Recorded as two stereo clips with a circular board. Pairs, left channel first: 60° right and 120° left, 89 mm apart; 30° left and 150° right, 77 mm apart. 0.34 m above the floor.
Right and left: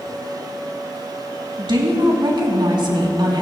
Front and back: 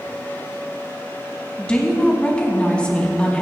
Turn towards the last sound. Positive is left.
turn(degrees=105)